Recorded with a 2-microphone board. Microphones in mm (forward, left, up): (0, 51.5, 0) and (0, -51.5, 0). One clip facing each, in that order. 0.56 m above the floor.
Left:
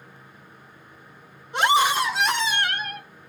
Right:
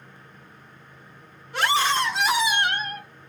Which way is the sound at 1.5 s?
20° left (ahead or behind).